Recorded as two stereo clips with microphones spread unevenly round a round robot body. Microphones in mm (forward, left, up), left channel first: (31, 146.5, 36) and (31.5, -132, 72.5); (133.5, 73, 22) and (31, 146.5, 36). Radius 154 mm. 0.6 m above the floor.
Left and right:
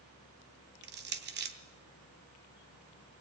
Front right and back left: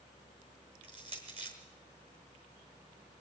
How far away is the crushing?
About 1.0 m.